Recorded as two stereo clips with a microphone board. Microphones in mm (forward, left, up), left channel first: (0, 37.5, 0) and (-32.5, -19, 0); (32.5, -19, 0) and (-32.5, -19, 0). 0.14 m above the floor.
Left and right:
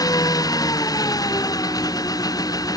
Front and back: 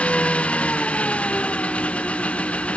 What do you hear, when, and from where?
0.0 s an engine running: 70° left